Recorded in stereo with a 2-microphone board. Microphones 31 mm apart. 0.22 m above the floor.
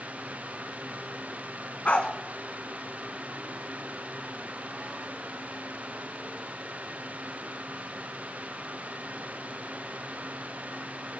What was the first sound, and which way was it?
A dog barking, 55° left (ahead or behind).